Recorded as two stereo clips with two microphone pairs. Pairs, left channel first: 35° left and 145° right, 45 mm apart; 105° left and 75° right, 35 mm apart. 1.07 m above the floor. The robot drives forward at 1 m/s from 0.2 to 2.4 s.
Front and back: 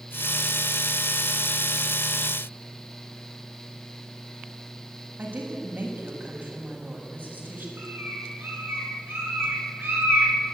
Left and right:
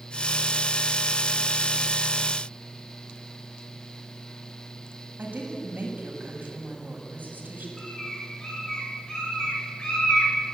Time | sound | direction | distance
5.2 | a woman speaking | 105° right | 7 m
7.8 | a bird | 175° left | 7.5 m